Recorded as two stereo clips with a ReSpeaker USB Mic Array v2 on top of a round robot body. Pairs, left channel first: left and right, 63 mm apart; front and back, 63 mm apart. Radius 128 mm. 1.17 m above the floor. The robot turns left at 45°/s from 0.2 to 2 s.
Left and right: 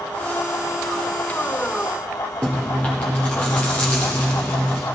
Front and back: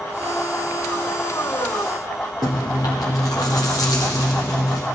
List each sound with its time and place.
2.4 s chewing: 20° left, 0.5 m